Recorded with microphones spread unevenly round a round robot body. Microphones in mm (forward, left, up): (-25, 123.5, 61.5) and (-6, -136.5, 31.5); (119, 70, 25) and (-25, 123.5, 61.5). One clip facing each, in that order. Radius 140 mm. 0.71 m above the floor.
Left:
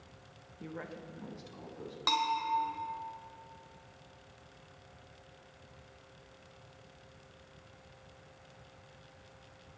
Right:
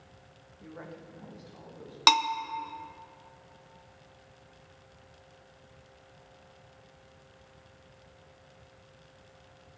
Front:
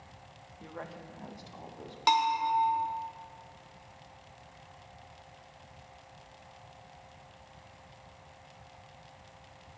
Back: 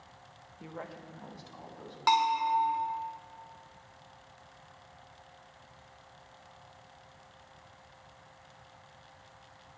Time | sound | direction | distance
0.6 | a woman speaking | 75° left | 1.2 m
2.1 | a bell | 95° right | 0.8 m